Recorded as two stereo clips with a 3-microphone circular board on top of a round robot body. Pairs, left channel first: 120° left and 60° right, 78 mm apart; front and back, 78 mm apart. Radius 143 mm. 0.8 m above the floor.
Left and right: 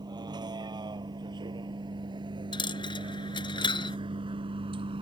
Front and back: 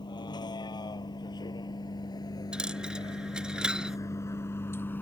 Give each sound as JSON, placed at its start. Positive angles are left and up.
{"t": 0.0, "sound": "a vehicle", "azimuth_deg": -30}
{"t": 2.5, "sound": "a dropped coin", "azimuth_deg": 100}